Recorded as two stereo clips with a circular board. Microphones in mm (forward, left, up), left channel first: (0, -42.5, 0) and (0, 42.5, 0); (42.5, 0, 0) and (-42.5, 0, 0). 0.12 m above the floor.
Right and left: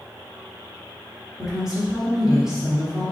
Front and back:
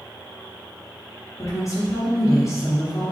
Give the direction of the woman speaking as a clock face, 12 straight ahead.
12 o'clock.